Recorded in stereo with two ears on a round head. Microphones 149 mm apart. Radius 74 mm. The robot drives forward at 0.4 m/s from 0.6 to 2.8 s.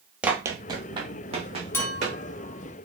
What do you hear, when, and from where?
0.2 s running footsteps: 5° right (ahead or behind), 1.4 m; by 2.2 s 40° right (ahead or behind), 4 m
1.7 s a clink: 15° left (ahead or behind), 1.5 m; by 2.9 s 10° left (ahead or behind), 1.9 m